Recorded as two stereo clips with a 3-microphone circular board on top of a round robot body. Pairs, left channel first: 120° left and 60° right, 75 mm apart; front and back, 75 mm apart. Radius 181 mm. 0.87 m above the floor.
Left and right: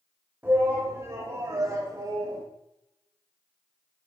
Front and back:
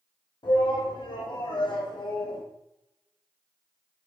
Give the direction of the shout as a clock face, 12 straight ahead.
12 o'clock.